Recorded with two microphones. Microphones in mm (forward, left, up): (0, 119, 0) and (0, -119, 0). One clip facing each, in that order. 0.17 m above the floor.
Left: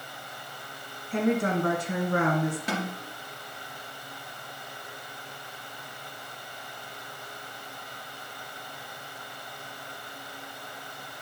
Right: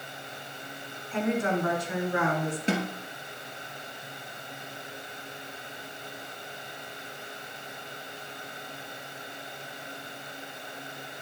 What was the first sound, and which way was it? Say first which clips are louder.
A woman speaking: left 2 dB; 40° left (ahead or behind).